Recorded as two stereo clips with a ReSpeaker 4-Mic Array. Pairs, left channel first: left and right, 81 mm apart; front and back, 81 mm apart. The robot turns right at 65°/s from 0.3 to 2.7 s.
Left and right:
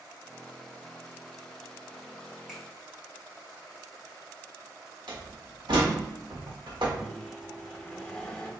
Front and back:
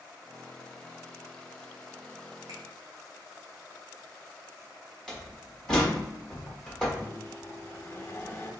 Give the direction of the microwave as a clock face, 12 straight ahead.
11 o'clock.